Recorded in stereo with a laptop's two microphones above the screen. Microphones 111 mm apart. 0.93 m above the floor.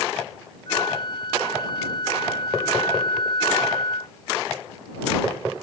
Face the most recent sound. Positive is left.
turn(degrees=40)  # may be behind; listen again after turning